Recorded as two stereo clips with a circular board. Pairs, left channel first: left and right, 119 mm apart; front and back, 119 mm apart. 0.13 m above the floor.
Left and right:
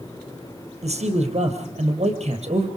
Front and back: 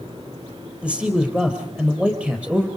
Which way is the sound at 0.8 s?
100° right.